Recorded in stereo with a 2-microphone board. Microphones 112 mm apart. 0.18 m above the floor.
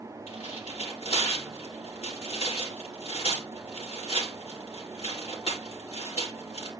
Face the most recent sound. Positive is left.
turn(degrees=65)  # may be behind; listen again after turning